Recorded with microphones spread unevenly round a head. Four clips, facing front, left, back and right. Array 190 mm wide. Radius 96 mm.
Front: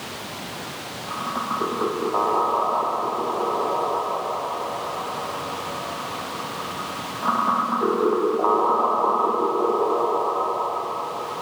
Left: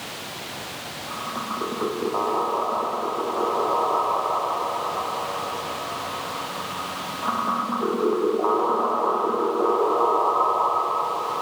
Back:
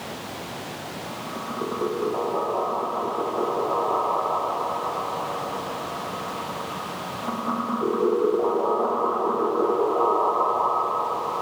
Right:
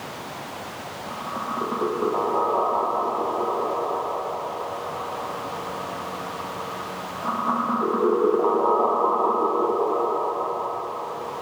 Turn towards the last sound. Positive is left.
No sound to turn to.